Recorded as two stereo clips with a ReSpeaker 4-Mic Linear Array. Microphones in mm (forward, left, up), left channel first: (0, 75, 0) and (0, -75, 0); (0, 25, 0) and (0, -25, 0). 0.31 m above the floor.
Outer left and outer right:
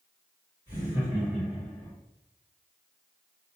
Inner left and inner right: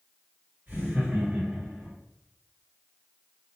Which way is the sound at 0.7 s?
30° right (ahead or behind).